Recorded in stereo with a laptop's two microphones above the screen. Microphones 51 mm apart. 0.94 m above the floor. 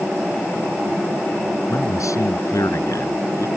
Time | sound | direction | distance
1.7 | a man speaking | 85° left | ?